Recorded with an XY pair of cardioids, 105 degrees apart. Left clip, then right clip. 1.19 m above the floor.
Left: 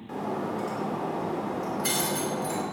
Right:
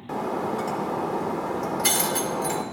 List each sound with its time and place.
0.1 s breaking glass: 55° right, 2.5 m